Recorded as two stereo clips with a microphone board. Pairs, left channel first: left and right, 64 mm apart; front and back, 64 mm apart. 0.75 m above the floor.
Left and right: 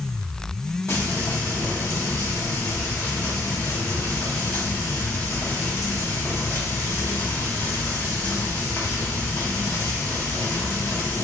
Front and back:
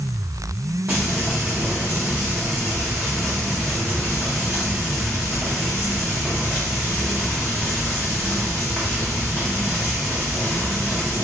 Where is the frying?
120° left, 1.9 m.